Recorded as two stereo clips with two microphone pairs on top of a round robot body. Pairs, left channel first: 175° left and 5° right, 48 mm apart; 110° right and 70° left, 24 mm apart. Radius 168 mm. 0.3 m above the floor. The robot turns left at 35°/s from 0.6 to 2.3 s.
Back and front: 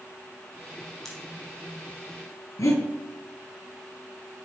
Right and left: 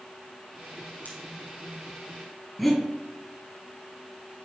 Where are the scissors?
100° right, 4 m; by 1.2 s 105° right, 4 m.